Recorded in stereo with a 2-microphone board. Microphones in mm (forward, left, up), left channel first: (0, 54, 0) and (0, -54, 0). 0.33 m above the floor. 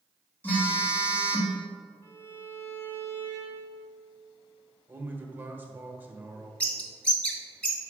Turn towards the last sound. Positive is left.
turn(degrees=15)  # may be behind; listen again after turning